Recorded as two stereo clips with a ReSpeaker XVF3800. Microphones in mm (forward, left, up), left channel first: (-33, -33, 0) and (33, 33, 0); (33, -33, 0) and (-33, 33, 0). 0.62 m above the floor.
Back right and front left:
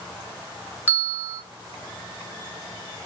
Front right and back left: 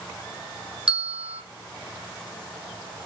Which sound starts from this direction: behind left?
A bell, at 0.9 s.